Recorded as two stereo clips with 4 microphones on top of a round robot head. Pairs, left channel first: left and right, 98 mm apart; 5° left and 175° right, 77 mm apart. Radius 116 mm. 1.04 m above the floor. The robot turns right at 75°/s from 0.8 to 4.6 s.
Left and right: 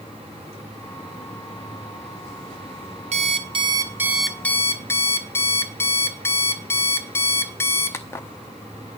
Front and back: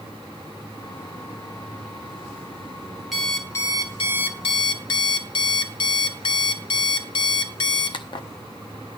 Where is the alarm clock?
90° right, 0.9 m; by 8.3 s 25° left, 0.9 m.